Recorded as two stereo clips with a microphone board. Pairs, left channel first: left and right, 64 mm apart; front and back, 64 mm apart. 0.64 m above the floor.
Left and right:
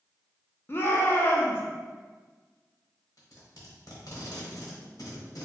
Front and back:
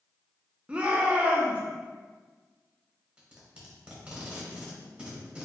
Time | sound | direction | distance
0.7 | a shout | 120° left | 0.7 m
3.2 | tape being pulled | 110° left | 1.0 m